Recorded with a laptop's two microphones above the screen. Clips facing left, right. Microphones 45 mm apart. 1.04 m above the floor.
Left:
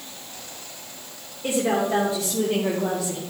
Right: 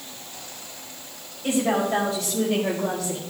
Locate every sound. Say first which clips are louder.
1.4 s a woman speaking: even; 45° left (ahead or behind), 3 m; by 3.2 s 20° left (ahead or behind), 1.9 m